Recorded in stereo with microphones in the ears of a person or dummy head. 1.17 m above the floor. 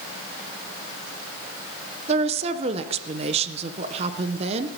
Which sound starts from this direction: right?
A woman speaking, at 2.1 s.